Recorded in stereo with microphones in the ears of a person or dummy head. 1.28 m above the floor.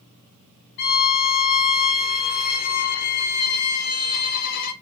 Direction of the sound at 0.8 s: 50° left (ahead or behind).